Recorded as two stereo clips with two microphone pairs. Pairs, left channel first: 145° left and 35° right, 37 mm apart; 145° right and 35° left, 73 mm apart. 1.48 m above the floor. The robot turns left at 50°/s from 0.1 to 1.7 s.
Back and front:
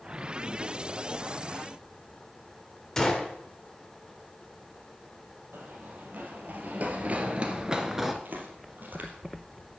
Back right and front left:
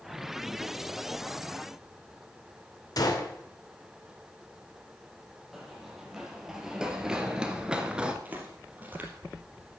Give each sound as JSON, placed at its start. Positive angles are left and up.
{"t": 3.0, "sound": "a gunshot", "azimuth_deg": -135, "distance_m": 2.0}
{"t": 5.5, "sound": "running footsteps", "azimuth_deg": -50, "distance_m": 3.0}
{"t": 8.2, "sound": "footsteps", "azimuth_deg": -25, "distance_m": 2.5}